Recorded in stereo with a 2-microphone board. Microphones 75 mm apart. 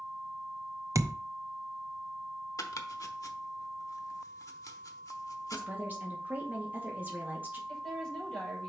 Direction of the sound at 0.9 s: 45° right (ahead or behind).